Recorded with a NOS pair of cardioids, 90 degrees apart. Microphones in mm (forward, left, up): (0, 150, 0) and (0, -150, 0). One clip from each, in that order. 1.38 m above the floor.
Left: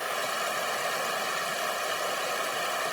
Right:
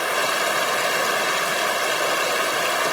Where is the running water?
55° right.